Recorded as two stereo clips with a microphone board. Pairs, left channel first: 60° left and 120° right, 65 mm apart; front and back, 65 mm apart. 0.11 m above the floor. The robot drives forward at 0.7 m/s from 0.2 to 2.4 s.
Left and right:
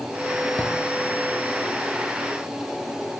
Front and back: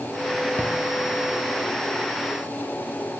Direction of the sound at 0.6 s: 125° left.